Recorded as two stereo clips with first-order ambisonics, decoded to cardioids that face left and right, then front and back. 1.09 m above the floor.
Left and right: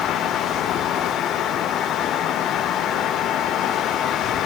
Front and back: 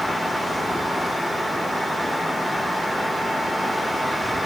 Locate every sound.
Only background noise.